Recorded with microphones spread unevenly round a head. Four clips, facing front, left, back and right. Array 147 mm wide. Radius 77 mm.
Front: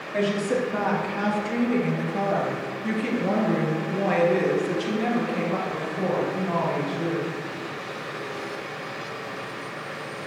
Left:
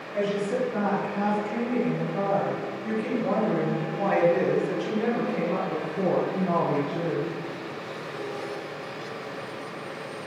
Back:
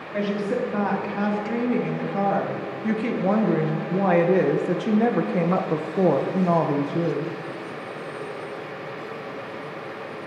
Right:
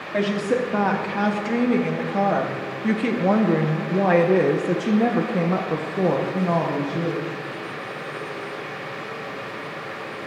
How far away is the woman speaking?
About 3 m.